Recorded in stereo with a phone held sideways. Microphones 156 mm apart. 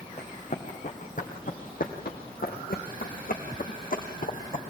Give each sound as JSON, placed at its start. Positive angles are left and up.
{"t": 0.2, "sound": "running footsteps", "side_deg": 50, "distance_m": 4.0}